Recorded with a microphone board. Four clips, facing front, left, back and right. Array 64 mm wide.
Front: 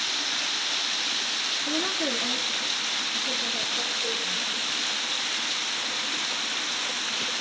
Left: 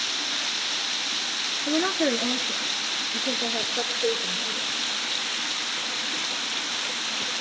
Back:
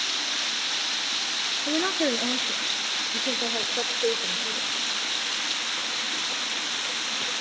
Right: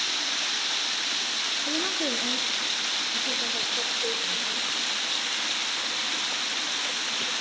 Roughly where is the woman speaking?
Behind left.